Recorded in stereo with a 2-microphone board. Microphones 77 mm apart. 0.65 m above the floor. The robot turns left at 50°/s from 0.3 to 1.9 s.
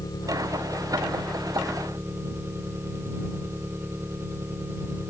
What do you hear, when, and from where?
0.0 s an engine running: 50° left; by 5.1 s 30° right